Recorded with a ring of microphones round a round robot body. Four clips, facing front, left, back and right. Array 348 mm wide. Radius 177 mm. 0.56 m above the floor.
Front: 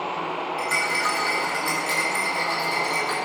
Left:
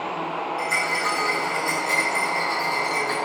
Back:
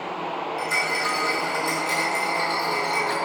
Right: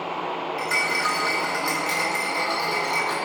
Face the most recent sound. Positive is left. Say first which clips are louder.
# even, front 1 dB
turn(degrees=-70)